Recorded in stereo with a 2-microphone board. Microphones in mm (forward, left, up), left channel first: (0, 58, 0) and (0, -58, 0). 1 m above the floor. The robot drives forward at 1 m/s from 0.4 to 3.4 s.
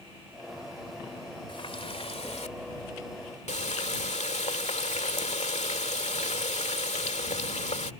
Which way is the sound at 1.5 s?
50° left (ahead or behind).